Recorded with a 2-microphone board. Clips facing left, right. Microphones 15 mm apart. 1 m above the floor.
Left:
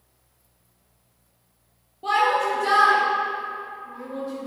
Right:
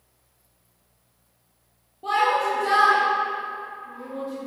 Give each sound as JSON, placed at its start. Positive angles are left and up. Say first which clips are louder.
{"t": 2.0, "sound": "a shout", "louder": "left 1 dB", "side_deg": 25, "distance_m": 1.5}